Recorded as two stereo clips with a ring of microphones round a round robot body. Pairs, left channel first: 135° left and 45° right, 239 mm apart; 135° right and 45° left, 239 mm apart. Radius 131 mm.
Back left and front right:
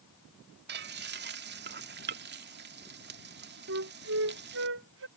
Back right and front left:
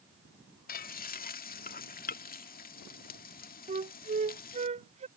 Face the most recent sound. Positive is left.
turn(degrees=-15)